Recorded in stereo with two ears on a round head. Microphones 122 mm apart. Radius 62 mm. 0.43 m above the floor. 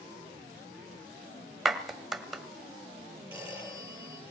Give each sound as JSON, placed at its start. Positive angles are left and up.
{"t": 1.6, "sound": "a clap", "side_deg": 0, "distance_m": 1.4}
{"t": 3.3, "sound": "a phone ringing", "side_deg": -10, "distance_m": 7.5}